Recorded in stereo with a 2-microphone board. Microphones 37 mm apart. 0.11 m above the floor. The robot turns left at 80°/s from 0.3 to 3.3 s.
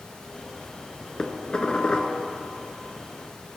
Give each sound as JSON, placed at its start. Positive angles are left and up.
{"t": 1.2, "sound": "dishes clattering", "side_deg": 20, "distance_m": 1.1}